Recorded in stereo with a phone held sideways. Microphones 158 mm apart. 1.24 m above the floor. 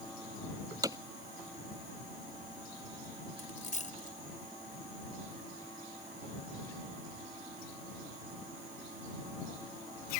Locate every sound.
0.8 s hammering: 20° right (ahead or behind)
3.4 s a dropped coin: 55° left (ahead or behind)